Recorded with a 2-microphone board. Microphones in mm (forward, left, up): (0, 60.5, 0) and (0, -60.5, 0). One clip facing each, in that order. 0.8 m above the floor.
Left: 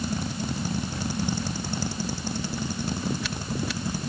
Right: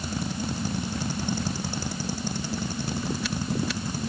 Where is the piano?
I don't hear a piano.